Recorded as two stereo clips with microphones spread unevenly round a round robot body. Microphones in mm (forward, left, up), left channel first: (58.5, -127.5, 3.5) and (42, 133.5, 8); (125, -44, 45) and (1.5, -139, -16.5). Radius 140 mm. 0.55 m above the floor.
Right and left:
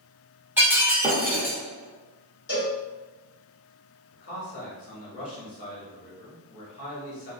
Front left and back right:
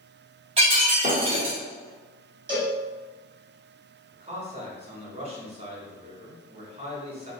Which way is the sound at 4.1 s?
145° right.